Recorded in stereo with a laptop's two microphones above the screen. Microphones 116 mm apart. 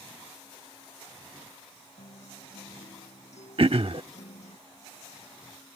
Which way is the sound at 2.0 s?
85° left.